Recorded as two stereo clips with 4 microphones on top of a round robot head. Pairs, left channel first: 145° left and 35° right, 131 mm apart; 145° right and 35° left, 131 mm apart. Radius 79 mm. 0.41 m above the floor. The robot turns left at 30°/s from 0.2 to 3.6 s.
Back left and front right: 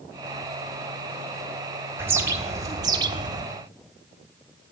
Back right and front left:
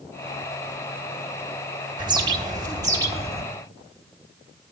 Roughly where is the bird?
Ahead left.